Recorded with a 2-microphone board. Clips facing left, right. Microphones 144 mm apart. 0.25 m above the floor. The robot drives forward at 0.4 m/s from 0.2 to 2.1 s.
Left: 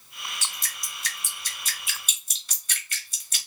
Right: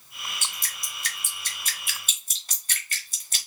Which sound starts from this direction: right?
Dripping, at 0.4 s.